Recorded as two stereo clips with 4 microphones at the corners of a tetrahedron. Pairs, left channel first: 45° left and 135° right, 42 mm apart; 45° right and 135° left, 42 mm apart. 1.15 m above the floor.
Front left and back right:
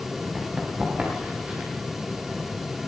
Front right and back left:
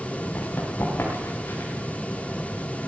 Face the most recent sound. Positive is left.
turn(degrees=-75)